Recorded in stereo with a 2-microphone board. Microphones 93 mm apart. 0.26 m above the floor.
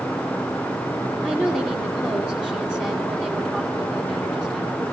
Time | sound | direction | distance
1.2 | a woman speaking | 10° left (ahead or behind) | 2.5 m